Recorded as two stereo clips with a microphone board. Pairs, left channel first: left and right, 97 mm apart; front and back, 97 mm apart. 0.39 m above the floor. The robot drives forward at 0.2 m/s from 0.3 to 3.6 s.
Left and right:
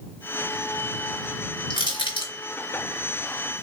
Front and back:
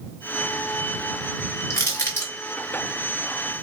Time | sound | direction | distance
1.7 | crushing | 60° left | 1.9 m